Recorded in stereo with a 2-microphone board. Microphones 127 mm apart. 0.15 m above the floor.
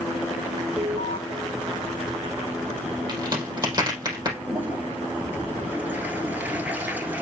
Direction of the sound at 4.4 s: 15° right (ahead or behind).